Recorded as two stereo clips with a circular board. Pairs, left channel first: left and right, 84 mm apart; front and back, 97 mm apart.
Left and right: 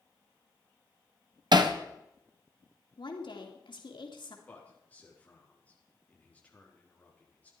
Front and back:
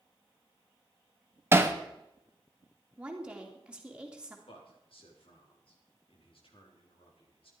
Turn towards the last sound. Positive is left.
turn(degrees=20)